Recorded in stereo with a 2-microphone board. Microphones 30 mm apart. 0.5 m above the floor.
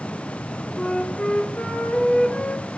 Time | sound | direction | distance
0.8 | a flute | 45° left (ahead or behind) | 1.3 m